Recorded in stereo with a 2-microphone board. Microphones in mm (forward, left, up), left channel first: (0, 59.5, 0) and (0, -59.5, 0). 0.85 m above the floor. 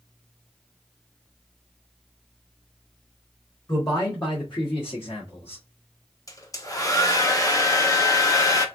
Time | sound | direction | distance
3.7 | a man speaking | 35° left (ahead or behind) | 1.4 m
6.3 | a hair dryer | 30° left (ahead or behind) | 0.7 m